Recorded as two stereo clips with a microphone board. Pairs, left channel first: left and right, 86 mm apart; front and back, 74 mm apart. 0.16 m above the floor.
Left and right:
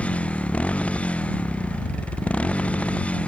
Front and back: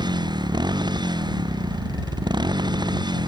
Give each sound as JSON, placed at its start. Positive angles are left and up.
{"t": 0.0, "sound": "a motorcycle", "azimuth_deg": 165}